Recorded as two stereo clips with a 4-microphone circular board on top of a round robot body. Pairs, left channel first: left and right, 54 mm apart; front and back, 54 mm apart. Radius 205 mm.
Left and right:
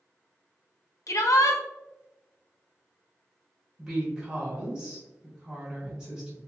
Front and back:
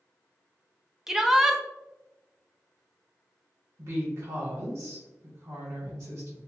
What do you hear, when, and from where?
1.1 s a shout: 95° left, 0.5 m
3.8 s a woman speaking: 160° right, 1.4 m